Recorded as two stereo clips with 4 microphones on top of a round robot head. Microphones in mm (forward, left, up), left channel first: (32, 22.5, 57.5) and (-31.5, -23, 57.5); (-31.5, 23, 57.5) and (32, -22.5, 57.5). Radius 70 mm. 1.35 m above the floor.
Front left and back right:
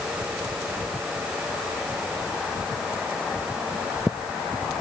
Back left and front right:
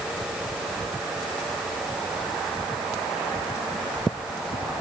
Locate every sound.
Only background noise.